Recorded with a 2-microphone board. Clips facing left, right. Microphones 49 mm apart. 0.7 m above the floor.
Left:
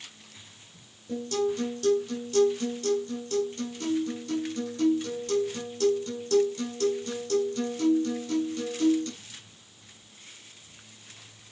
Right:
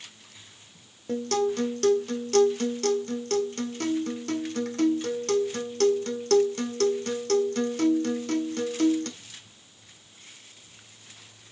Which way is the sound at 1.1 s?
65° right (ahead or behind).